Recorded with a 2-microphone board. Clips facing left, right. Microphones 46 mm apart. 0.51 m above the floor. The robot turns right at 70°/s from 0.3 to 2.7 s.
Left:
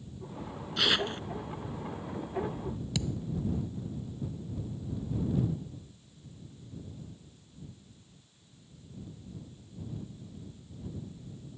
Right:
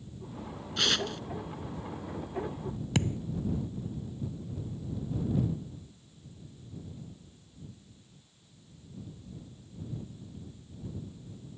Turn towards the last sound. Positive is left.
turn(degrees=-40)  # may be behind; listen again after turning